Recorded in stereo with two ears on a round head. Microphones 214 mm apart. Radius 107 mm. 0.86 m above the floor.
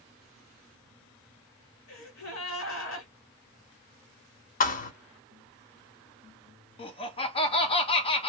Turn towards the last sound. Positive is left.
turn(degrees=25)  # may be behind; listen again after turning